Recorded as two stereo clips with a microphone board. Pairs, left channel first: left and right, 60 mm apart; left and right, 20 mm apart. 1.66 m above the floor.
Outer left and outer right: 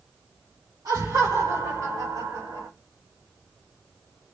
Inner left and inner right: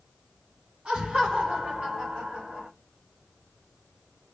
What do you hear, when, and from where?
0.8 s laughter: 75° right (ahead or behind), 1.8 m; by 2.7 s 80° right, 2.5 m